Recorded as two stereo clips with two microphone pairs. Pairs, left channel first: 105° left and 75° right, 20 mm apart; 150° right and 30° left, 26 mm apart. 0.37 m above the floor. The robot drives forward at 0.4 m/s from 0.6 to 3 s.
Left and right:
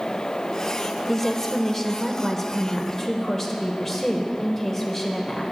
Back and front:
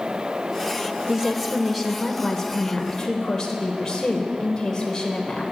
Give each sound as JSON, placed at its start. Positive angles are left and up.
{"t": 1.1, "sound": "a woman speaking", "azimuth_deg": 60, "distance_m": 0.8}